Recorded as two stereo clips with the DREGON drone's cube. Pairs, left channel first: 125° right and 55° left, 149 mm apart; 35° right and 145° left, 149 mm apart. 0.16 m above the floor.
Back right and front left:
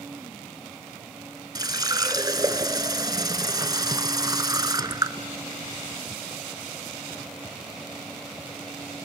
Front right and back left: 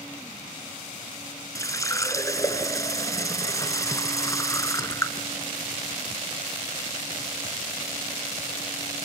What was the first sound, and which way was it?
A running tap, 15° left.